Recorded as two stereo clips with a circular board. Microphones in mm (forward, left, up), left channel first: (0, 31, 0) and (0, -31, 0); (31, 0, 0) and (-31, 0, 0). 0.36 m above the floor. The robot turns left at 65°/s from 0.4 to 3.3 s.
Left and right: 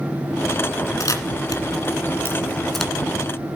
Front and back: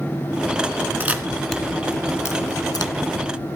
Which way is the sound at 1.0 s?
120° left.